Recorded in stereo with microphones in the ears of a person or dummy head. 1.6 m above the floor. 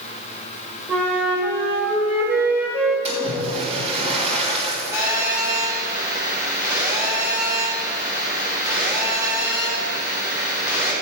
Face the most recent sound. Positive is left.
turn(degrees=-10)  # may be behind; listen again after turning